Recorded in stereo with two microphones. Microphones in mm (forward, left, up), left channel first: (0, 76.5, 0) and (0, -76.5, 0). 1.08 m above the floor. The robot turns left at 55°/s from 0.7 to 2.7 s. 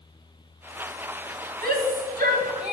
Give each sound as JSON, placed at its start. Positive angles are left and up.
{"t": 1.6, "sound": "a shout", "side_deg": -70, "distance_m": 1.8}